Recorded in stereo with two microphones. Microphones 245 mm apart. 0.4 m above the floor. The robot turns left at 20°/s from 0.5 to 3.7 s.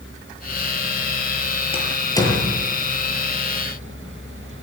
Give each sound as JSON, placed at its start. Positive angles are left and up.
{"t": 1.7, "sound": "a door slam", "side_deg": 25, "distance_m": 6.0}